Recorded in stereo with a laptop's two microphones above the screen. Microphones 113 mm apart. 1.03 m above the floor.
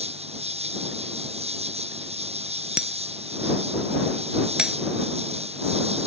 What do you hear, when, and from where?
0.0 s an insect: 65° right (ahead or behind)
2.8 s breaking glass: 10° right (ahead or behind)